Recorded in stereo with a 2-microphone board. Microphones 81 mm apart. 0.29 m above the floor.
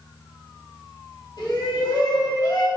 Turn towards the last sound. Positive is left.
turn(degrees=70)  # may be behind; listen again after turning